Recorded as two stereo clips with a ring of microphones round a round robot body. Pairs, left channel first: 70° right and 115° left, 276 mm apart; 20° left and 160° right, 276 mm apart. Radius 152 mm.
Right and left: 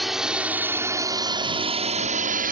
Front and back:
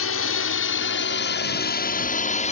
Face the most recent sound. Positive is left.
turn(degrees=75)